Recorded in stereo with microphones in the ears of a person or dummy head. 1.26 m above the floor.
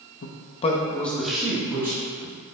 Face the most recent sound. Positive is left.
turn(degrees=-20)  # may be behind; listen again after turning